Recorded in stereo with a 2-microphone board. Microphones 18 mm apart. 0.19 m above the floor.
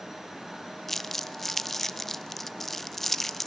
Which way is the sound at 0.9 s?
10° left (ahead or behind).